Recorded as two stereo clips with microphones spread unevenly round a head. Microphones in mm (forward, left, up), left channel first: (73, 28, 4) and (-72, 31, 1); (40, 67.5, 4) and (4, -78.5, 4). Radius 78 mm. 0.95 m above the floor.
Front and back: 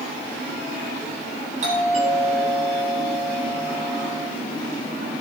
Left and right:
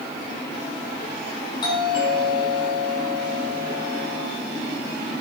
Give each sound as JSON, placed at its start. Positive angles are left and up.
{"t": 1.6, "sound": "a doorbell", "azimuth_deg": 140, "distance_m": 8.0}